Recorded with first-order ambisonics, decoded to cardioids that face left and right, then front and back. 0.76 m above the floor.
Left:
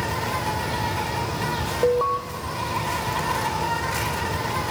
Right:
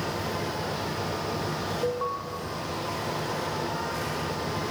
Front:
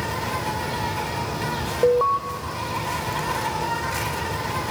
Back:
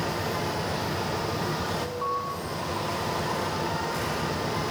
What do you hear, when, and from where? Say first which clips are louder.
0.0 s an insect: left 5 dB, front 3 dB; 35° left, 8.5 m
1.8 s an alarm: left 10 dB, front 11 dB; 30° left, 1.9 m